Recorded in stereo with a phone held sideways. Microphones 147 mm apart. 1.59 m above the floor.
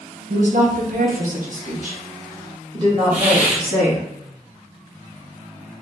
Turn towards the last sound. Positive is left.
turn(degrees=50)  # may be behind; listen again after turning